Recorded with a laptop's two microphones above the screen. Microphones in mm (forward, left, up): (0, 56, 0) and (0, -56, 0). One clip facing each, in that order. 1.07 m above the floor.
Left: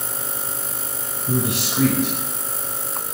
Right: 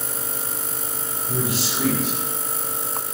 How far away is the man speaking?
About 5.5 m.